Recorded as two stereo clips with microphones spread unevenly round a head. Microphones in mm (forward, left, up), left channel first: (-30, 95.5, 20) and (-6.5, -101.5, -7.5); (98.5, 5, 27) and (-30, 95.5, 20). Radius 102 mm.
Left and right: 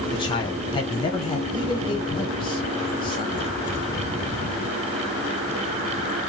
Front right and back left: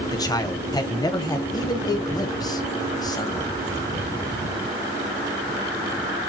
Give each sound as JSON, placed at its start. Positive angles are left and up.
{"t": 0.1, "sound": "a man speaking", "azimuth_deg": 30, "distance_m": 0.7}